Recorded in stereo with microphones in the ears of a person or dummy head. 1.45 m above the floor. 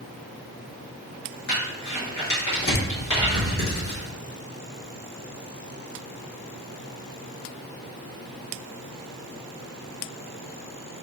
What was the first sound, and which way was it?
Crumpling, 70° left (ahead or behind).